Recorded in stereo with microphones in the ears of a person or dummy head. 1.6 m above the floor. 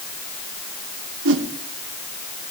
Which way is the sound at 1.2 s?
70° right (ahead or behind).